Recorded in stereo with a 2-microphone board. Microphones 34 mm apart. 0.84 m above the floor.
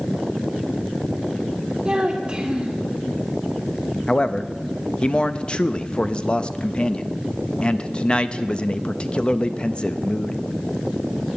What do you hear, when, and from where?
1.9 s a child speaking: 25° right (ahead or behind), 1.5 m
4.1 s a man speaking: 30° left (ahead or behind), 0.5 m